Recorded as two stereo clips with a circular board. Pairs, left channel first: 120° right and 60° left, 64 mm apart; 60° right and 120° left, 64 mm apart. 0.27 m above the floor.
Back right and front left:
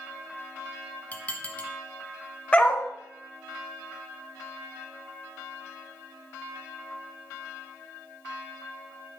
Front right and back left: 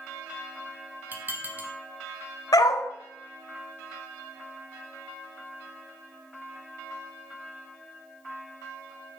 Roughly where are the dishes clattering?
Behind.